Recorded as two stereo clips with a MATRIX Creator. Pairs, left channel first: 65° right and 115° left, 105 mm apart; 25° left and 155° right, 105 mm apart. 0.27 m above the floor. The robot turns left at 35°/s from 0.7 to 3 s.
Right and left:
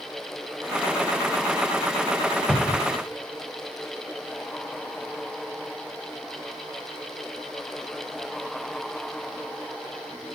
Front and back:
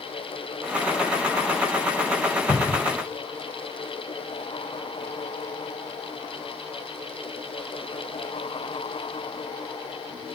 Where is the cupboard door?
5° left, 1.1 m; by 2.9 s 10° right, 1.1 m.